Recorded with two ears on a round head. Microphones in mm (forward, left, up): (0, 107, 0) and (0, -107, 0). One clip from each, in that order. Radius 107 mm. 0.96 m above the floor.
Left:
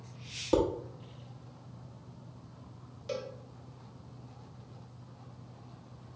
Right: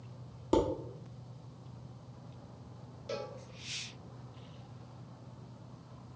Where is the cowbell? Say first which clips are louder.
Left 2 dB; 20° left (ahead or behind), 0.9 m.